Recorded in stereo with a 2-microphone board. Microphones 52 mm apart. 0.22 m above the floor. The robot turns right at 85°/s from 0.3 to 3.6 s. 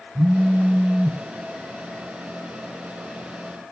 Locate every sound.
0.1 s a phone buzzing: 30° right (ahead or behind), 0.6 m; by 1.2 s 10° right (ahead or behind), 0.6 m